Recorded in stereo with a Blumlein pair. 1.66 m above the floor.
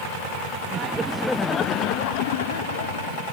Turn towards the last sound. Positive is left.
turn(degrees=65)